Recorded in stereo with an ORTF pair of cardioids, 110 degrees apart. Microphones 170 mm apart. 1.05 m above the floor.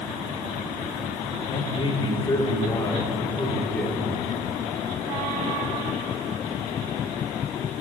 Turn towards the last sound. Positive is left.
turn(degrees=5)